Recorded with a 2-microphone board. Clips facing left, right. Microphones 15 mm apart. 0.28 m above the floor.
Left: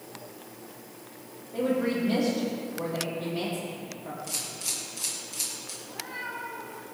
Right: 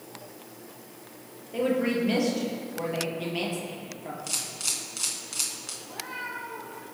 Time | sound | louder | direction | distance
1.5 | a woman speaking | right 1 dB | 65° right (ahead or behind) | 5.5 m
4.3 | a camera shutter | right 3 dB | 45° right (ahead or behind) | 3 m
5.8 | a cat meowing | right 1 dB | 55° right (ahead or behind) | 5 m